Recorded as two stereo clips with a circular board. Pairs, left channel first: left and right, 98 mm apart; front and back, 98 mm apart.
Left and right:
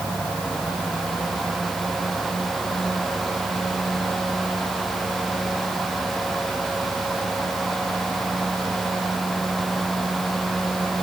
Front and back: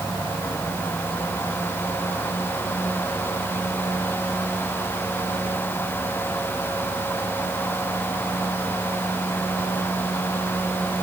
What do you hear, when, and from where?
Only background noise.